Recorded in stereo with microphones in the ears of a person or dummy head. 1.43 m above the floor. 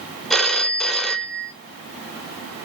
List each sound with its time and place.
0.3 s a phone ringing: centre (ahead or behind), 0.6 m